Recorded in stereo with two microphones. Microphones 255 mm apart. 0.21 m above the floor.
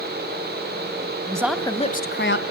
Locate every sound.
1.3 s a woman speaking: 20° right (ahead or behind), 1.1 m; by 2.4 s 50° left (ahead or behind), 1.6 m